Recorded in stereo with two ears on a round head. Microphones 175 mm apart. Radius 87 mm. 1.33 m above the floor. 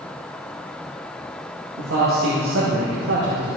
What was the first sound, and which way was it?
A man speaking, 70° right (ahead or behind).